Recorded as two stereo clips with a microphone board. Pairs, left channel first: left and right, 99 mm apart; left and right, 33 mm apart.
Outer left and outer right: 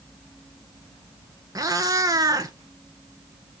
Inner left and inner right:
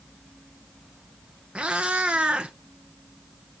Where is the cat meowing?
35° right (ahead or behind), 1.0 m.